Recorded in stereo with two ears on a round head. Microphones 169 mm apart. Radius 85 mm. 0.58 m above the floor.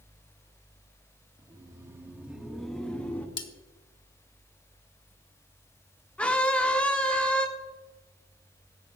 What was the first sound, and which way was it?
Laughter, 20° right (ahead or behind).